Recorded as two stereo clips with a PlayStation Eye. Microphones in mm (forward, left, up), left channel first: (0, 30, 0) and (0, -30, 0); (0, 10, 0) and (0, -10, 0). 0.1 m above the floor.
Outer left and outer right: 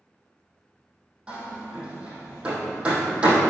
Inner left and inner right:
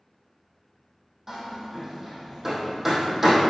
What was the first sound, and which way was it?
Hammering, 20° right (ahead or behind).